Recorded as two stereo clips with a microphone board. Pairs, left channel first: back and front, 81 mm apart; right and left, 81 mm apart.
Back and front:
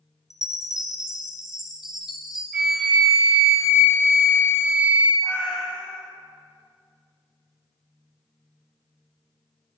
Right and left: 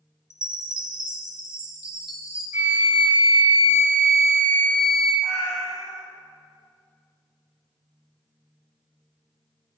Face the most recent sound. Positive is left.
turn(degrees=165)